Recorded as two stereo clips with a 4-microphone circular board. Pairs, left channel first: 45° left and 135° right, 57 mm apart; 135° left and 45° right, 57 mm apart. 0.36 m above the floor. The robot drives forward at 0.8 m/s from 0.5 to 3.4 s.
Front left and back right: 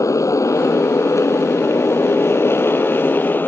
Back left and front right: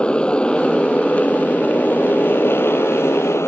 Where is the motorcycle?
65° left; by 3.5 s 100° left.